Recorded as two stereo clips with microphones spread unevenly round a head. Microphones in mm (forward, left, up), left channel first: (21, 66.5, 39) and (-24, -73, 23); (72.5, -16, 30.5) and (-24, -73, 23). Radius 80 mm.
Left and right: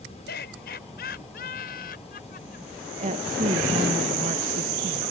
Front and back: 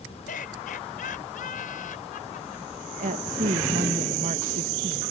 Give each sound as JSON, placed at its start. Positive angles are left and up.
{"t": 0.3, "sound": "laughter", "azimuth_deg": 50}
{"t": 3.0, "sound": "a woman speaking", "azimuth_deg": -150}